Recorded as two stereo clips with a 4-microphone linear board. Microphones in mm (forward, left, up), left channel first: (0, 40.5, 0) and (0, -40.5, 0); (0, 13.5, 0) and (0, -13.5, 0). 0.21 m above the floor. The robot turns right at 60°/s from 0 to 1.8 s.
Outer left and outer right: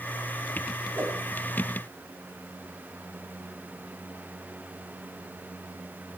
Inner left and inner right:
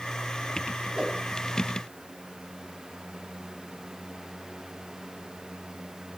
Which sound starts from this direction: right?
A whoosh, at 0.9 s.